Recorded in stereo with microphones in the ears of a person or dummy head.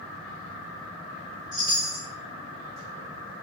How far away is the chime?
About 0.6 m.